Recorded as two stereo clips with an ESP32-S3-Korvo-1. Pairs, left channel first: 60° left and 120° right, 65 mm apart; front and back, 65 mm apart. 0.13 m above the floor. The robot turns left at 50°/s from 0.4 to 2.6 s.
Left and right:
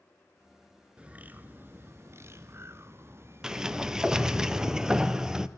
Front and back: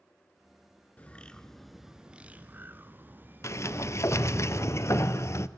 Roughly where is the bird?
Ahead right.